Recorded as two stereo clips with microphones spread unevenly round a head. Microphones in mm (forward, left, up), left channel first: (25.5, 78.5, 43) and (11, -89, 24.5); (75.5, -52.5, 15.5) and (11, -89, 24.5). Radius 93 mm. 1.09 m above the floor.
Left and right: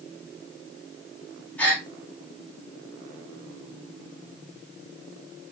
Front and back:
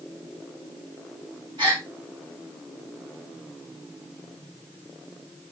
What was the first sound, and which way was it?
A gasp, 165° left.